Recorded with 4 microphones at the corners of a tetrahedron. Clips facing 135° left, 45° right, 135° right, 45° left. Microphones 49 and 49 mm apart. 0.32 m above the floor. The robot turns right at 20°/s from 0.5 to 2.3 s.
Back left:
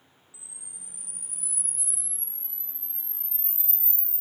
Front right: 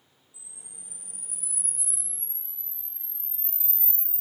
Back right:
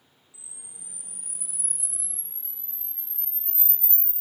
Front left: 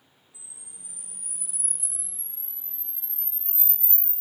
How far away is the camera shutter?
About 0.8 m.